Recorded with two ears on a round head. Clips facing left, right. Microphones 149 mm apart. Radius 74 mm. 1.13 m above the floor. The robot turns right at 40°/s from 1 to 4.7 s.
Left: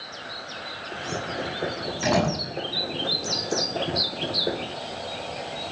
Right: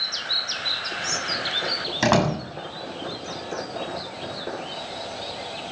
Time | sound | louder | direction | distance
2.0 | a door slam | right 3 dB | 80° right | 6.5 m